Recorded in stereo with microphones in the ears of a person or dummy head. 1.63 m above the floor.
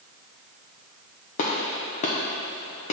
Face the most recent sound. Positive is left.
turn(degrees=35)  # may be behind; listen again after turning